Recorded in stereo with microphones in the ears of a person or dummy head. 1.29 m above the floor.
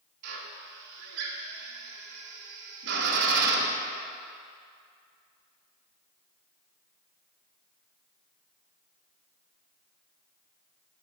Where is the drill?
60° right (ahead or behind), 1.2 m.